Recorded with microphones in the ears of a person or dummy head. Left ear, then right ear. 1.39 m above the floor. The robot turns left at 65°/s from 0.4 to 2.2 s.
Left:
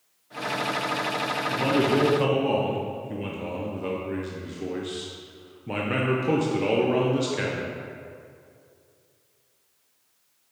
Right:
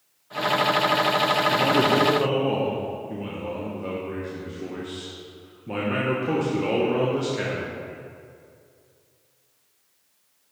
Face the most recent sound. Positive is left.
turn(degrees=160)